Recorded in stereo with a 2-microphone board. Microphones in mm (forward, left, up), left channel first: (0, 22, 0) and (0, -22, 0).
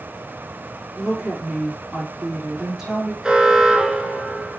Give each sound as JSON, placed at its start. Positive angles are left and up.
{"t": 1.0, "sound": "a woman speaking", "side_deg": -10, "distance_m": 4.5}
{"t": 3.2, "sound": "an alarm", "side_deg": -20, "distance_m": 1.4}